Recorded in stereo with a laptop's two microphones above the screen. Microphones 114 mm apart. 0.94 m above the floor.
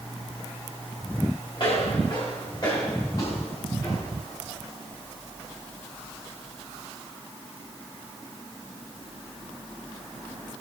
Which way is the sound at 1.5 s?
45° left (ahead or behind).